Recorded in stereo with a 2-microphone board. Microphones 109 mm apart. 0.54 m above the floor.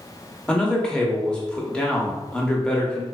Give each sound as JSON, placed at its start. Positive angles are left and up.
{"t": 0.5, "sound": "a man speaking", "side_deg": 10, "distance_m": 0.7}